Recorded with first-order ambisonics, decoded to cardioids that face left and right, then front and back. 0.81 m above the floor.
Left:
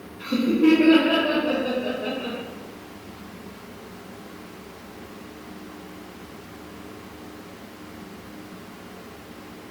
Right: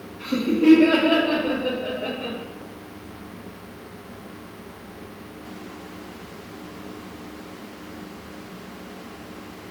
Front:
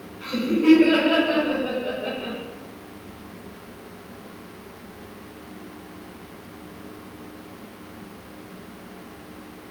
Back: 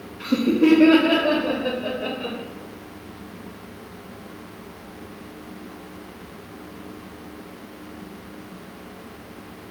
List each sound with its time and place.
0.2 s laughter: straight behind, 0.6 m; by 2.4 s 175° right, 1.7 m